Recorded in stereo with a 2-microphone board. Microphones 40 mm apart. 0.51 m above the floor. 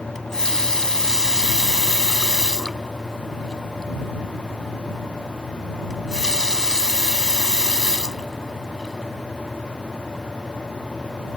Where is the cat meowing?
No cat meowing in this recording.